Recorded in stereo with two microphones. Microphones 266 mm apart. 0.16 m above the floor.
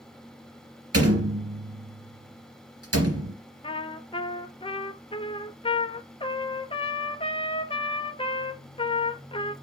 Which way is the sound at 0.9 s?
60° right (ahead or behind).